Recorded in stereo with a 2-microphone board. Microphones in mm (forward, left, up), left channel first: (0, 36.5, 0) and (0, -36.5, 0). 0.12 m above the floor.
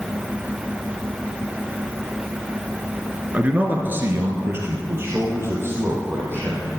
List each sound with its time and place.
3.3 s a man speaking: 20° right (ahead or behind), 1.2 m; by 6.7 s 35° right (ahead or behind), 4 m